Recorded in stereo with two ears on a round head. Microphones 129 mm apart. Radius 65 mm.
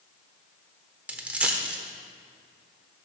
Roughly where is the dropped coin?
Centre.